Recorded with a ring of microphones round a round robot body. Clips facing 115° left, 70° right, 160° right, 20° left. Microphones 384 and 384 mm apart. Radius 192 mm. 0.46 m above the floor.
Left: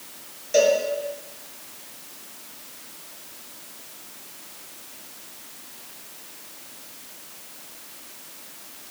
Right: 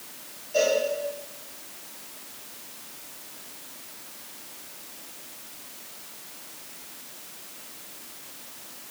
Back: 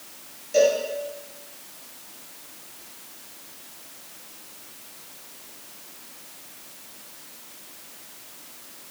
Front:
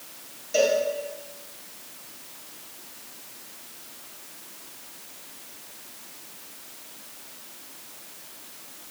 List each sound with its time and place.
0.5 s a cowbell: 105° left, 3.5 m